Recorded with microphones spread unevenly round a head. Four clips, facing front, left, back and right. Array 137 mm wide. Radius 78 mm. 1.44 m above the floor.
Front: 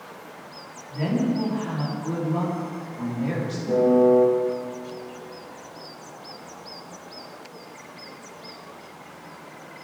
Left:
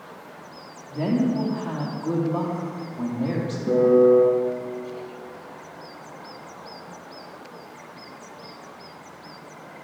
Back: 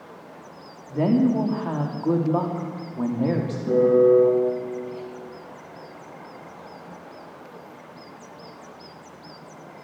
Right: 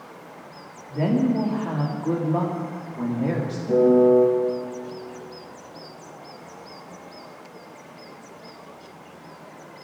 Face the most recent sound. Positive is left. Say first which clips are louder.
# even, back 1 dB
turn(degrees=110)